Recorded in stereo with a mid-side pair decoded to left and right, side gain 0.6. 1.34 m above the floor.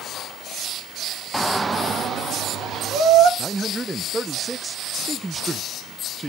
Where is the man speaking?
15° right, 0.9 m.